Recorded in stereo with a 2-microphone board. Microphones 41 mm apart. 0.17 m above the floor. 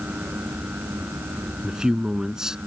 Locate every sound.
1.6 s a man speaking: 15° right (ahead or behind)